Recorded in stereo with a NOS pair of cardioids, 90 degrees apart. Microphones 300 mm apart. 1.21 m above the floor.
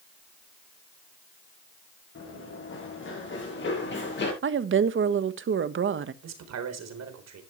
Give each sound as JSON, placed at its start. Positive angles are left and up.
{"t": 2.1, "sound": "running footsteps", "azimuth_deg": 45, "distance_m": 8.5}
{"t": 4.4, "sound": "a woman speaking", "azimuth_deg": -45, "distance_m": 1.4}
{"t": 6.2, "sound": "a man speaking", "azimuth_deg": -60, "distance_m": 4.0}